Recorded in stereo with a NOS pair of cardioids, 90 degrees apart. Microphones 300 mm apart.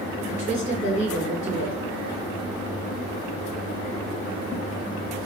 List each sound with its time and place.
0.3 s a woman speaking: 25° left, 2.5 m